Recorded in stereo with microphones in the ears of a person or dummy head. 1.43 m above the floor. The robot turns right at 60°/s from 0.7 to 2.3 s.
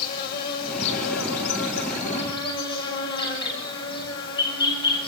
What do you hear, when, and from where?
0.0 s an insect: 60° left, 6 m; by 5.1 s 155° left, 6 m